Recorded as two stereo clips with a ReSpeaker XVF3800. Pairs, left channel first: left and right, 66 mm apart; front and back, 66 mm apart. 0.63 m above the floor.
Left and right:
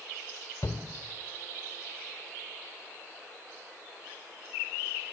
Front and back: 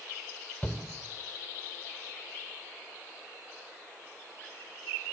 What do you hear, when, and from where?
0.6 s a shout: 65° left, 2.5 m